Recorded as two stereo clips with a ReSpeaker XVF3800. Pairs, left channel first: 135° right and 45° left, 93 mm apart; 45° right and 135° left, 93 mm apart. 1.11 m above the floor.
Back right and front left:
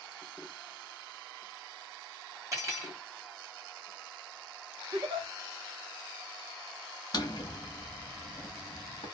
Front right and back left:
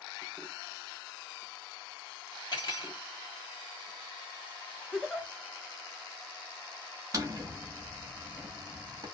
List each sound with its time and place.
2.5 s cutlery clinking: 10° right, 1.2 m
4.9 s a giggle: 40° left, 0.8 m
7.1 s a drawer: 175° right, 0.8 m